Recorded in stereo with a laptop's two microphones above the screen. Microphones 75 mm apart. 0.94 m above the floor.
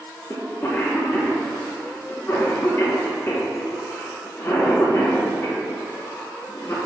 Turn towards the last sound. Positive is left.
turn(degrees=30)  # may be behind; listen again after turning